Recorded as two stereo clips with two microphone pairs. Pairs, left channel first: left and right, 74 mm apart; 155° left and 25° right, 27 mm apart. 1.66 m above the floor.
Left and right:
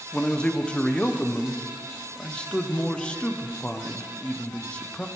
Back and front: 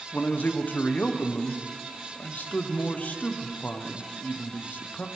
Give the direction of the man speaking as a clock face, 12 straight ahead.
6 o'clock.